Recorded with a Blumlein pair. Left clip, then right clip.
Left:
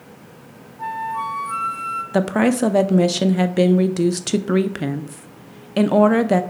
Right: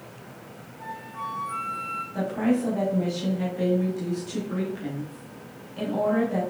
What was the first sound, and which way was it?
A flute, 25° left.